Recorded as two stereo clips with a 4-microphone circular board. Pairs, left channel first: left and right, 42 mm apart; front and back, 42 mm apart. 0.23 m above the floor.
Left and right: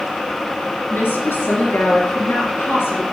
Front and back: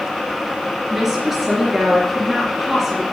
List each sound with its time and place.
0.9 s a woman speaking: 95° left, 3.5 m